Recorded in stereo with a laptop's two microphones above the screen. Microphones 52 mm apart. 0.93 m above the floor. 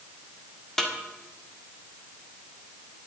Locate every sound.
0.8 s a snare drum: 10° left (ahead or behind), 1.5 m